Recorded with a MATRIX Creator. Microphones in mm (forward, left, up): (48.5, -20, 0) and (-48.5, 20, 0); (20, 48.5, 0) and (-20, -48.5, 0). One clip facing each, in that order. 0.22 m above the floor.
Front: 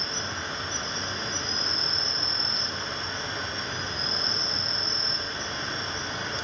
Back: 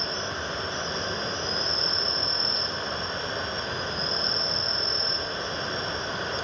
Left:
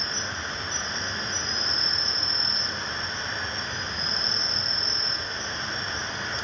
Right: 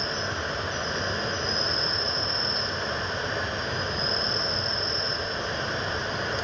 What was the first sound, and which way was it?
An insect, 155° right.